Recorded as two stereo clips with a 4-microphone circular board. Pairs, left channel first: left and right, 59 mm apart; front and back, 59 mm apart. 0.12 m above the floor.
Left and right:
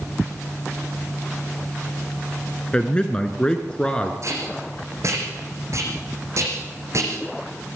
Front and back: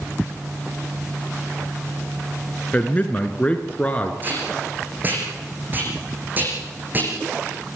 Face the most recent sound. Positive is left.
turn(degrees=-125)